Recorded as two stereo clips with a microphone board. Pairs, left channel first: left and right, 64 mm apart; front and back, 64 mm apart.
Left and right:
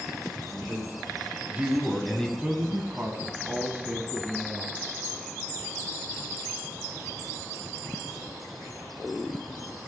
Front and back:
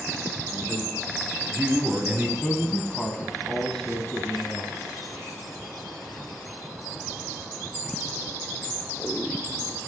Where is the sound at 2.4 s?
75° right, 1.1 m.